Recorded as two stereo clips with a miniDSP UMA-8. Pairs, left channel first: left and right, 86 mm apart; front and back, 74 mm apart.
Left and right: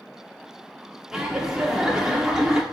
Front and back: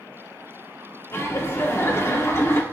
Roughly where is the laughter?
Ahead.